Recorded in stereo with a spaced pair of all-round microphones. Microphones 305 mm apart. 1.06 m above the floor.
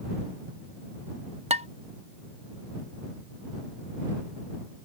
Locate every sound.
1.5 s dishes clattering: 20° right (ahead or behind)